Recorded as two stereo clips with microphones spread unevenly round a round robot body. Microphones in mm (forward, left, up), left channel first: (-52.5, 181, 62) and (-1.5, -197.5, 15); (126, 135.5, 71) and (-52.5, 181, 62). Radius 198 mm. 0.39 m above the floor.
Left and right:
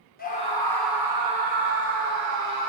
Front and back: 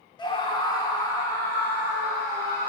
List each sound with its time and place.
0.2 s a scream: 35° left, 1.3 m; by 2.7 s 100° right, 1.8 m